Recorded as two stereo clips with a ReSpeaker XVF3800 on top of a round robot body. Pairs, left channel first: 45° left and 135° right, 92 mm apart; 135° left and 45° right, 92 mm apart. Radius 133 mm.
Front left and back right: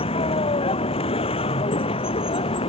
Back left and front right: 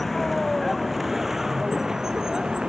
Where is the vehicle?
45° left; by 2.7 s 35° left.